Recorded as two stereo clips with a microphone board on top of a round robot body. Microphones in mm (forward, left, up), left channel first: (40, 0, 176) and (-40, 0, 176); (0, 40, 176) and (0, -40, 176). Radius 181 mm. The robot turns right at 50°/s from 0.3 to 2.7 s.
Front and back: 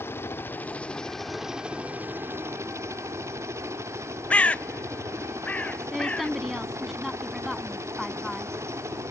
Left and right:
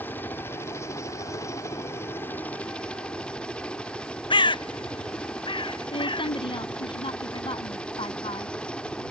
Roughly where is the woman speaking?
Left.